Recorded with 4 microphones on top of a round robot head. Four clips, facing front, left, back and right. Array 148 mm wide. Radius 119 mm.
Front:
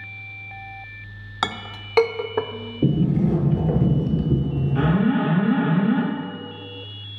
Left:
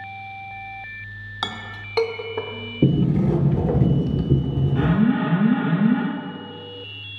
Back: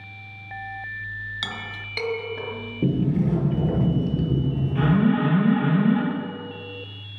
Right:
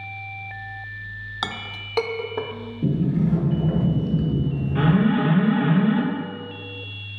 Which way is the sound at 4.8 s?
80° right.